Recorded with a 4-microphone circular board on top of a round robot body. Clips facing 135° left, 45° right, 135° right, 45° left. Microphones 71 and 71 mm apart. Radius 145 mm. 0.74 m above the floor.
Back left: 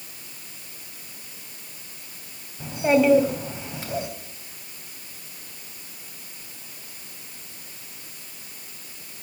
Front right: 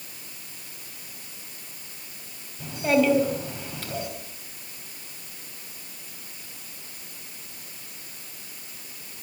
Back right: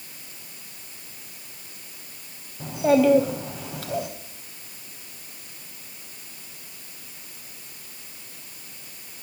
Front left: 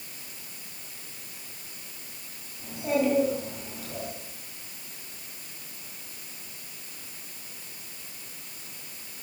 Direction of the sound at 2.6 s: 155° right.